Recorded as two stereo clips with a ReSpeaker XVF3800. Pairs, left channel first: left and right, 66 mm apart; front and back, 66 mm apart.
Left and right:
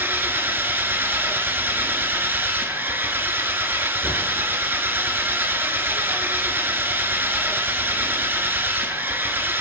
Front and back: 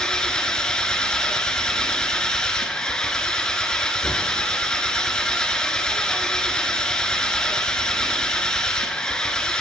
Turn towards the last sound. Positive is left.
turn(degrees=-70)